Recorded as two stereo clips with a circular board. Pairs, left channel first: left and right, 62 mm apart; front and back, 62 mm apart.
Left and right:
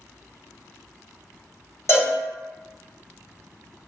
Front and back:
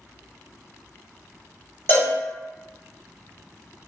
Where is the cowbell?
50° left, 1.4 m.